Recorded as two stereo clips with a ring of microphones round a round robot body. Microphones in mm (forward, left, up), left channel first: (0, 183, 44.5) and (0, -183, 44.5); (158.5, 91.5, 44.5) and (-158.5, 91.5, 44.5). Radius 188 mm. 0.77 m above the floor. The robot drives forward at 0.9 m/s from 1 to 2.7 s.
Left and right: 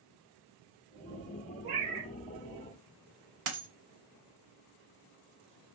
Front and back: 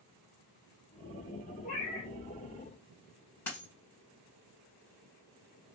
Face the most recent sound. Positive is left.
turn(degrees=-85)